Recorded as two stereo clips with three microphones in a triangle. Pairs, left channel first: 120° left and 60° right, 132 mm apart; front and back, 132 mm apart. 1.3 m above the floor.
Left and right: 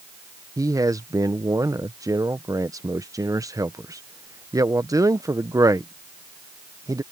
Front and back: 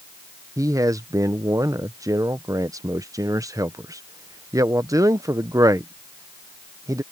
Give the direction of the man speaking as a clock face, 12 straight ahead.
4 o'clock.